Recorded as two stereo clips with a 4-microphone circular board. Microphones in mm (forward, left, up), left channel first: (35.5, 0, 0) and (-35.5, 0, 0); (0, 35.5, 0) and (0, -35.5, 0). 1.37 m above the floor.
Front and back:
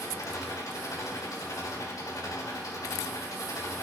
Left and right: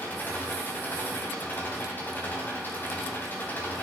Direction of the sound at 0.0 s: 30° left.